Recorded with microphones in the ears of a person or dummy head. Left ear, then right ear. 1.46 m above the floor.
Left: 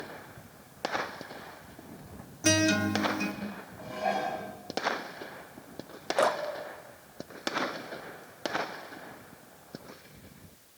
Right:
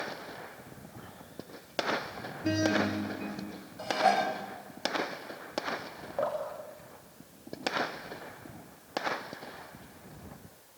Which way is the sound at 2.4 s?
65° left (ahead or behind).